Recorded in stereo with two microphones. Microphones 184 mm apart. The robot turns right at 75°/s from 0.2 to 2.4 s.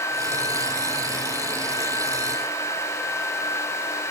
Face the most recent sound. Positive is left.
No sound to turn to.